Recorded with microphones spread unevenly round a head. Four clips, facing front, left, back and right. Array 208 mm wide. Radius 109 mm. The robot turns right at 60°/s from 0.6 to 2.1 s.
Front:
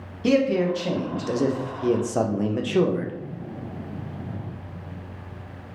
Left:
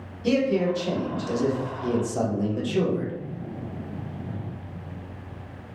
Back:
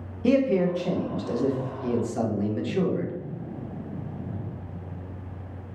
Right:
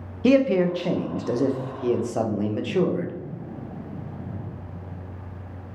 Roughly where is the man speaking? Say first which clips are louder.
Right 4 dB, front 1 dB; right.